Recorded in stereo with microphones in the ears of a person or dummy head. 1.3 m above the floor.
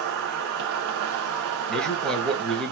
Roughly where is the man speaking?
Centre.